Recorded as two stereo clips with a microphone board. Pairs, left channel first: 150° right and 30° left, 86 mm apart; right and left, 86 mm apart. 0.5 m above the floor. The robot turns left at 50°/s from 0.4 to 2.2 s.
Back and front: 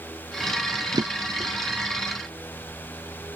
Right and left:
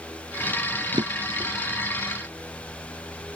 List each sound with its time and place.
0.9 s a drawer: 65° left; by 1.5 s 40° left